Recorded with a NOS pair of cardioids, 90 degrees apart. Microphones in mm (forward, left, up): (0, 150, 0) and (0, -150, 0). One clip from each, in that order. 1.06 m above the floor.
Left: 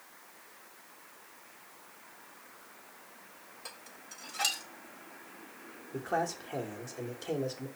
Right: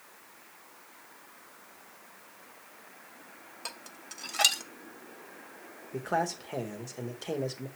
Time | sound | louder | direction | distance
3.6 | dishes clattering | right 6 dB | 40° right | 0.7 m
5.9 | a man speaking | right 2 dB | 15° right | 0.9 m